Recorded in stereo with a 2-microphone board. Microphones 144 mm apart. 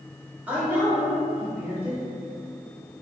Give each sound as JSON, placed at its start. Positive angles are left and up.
{"t": 0.5, "sound": "a woman speaking", "side_deg": -10, "distance_m": 0.9}